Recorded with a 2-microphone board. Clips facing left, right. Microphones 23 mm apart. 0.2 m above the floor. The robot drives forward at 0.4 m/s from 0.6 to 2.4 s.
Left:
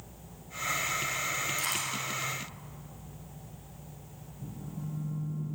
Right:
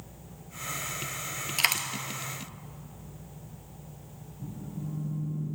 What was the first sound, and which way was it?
A dropped coin, 70° right (ahead or behind).